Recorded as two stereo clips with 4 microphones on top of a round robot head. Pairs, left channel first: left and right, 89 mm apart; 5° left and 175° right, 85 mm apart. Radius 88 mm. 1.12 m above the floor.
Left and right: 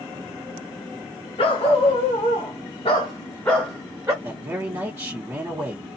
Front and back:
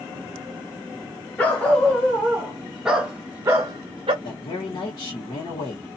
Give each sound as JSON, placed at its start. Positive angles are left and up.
{"t": 1.4, "sound": "a dog barking", "azimuth_deg": 75, "distance_m": 1.3}
{"t": 4.2, "sound": "a man speaking", "azimuth_deg": -30, "distance_m": 1.1}